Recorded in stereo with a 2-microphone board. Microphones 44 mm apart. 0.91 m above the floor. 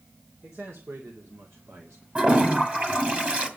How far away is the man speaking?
About 3 m.